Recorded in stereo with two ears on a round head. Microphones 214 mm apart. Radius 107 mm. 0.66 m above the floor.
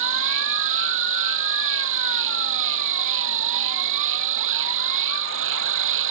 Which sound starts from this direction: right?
An insect, at 0.0 s.